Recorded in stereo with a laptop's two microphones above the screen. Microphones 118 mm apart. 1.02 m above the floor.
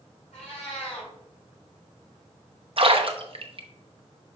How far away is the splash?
About 0.8 m.